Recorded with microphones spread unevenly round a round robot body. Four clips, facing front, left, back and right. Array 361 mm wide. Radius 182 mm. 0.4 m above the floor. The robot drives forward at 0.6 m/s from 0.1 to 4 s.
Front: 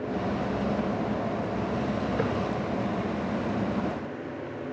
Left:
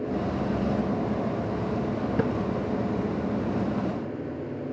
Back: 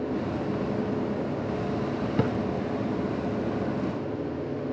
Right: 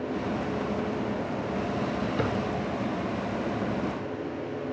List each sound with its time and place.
2.2 s a drawer: 155° left, 1.5 m